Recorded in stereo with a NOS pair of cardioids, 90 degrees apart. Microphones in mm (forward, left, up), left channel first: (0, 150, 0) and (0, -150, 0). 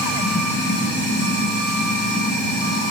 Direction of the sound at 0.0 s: 35° left.